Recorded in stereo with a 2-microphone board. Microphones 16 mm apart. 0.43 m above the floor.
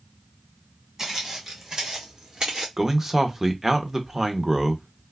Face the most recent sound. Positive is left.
turn(degrees=-20)  # may be behind; listen again after turning